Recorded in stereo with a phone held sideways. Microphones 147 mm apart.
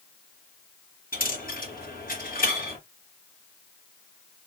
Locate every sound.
1.1 s a dropped coin: 75° left (ahead or behind), 3.5 m